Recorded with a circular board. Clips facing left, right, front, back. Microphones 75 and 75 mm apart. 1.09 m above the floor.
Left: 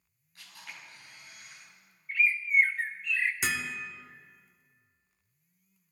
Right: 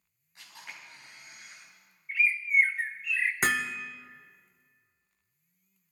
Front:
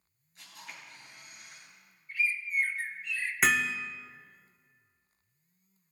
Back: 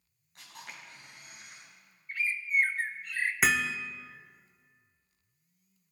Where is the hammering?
95° right, 0.9 m.